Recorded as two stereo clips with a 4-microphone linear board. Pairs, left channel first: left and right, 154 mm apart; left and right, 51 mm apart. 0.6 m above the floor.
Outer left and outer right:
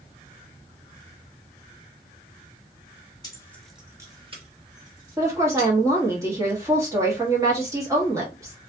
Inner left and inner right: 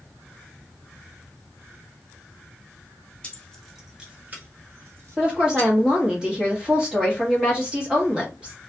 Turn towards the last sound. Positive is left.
turn(degrees=-15)  # may be behind; listen again after turning